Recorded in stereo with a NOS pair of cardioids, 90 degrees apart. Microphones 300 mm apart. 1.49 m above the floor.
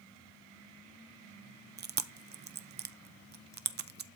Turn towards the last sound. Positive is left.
turn(degrees=-35)